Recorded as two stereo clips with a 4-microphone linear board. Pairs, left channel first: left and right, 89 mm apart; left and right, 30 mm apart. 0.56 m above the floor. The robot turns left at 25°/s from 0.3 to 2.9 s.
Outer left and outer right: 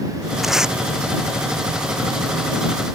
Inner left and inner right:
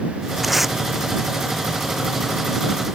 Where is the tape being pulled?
Centre (ahead or behind); by 0.8 s 10° right (ahead or behind).